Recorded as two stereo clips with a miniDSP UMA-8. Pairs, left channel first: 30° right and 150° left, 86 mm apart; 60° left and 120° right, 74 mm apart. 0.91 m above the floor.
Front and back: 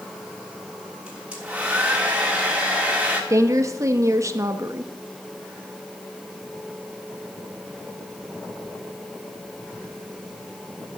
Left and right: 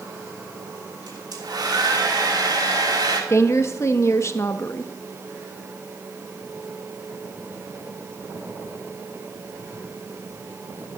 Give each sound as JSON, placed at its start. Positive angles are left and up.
{"t": 1.1, "sound": "a hair dryer", "azimuth_deg": -135, "distance_m": 3.0}
{"t": 3.3, "sound": "a woman speaking", "azimuth_deg": 105, "distance_m": 1.2}